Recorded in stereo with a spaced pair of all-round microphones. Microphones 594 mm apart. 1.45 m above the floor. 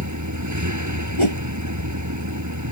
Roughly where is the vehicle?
Right.